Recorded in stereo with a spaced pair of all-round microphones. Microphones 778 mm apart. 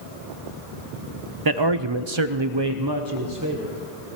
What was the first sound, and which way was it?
A man speaking, 30° right (ahead or behind).